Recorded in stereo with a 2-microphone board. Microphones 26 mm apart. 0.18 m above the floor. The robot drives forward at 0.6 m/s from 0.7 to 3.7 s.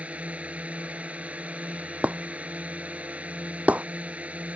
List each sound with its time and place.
0.0 s a drone: 65° right (ahead or behind)
2.0 s breaking glass: 70° right (ahead or behind)